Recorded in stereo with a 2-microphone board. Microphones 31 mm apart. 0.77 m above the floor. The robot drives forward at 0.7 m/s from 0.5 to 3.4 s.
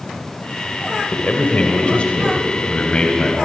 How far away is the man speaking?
About 3 m.